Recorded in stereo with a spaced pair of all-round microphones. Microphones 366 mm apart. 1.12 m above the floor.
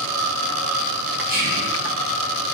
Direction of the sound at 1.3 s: 60° right (ahead or behind).